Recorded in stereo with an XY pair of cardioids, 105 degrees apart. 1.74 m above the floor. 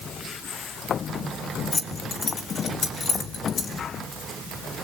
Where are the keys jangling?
40° left, 2.5 m; by 3.8 s 55° left, 3.5 m.